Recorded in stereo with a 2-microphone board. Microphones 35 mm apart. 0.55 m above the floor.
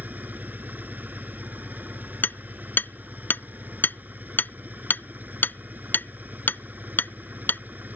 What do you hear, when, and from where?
0.0 s an engine running: 55° right (ahead or behind)
2.2 s hammering: 60° left (ahead or behind)